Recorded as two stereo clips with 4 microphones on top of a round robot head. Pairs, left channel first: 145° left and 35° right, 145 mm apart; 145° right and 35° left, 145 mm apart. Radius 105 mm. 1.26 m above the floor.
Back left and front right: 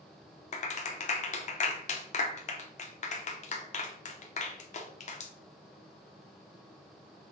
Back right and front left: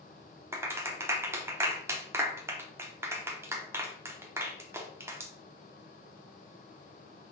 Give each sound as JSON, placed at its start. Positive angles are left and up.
{"t": 0.5, "sound": "a clap", "azimuth_deg": 105, "distance_m": 0.6}